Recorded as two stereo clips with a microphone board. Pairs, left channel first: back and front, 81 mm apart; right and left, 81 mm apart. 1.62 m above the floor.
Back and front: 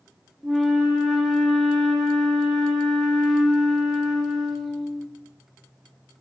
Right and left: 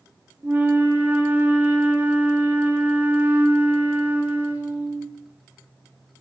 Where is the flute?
90° left, 1.1 m.